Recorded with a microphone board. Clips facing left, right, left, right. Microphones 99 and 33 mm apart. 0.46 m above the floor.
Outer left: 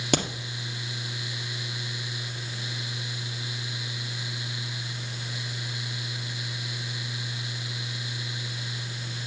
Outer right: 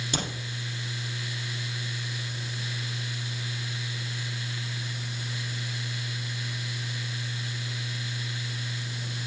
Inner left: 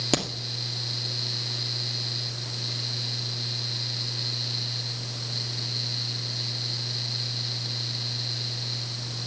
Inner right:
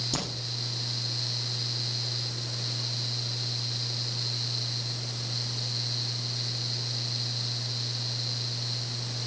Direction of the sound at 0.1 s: 85° left.